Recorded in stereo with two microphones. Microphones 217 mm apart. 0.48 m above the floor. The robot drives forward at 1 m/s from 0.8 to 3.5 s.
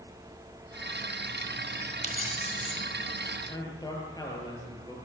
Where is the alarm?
No alarm in this recording.